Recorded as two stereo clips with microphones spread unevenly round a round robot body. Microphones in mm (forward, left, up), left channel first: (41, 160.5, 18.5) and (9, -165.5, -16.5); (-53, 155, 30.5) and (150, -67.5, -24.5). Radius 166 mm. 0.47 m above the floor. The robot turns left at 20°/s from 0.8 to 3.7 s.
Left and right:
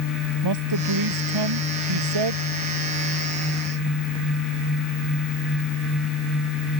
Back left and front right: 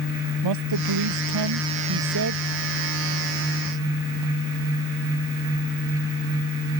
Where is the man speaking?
70° right; by 2.5 s 100° right.